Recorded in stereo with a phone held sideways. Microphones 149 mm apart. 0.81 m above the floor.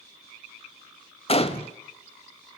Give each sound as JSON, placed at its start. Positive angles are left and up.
{"t": 1.3, "sound": "a gunshot", "side_deg": 45, "distance_m": 1.1}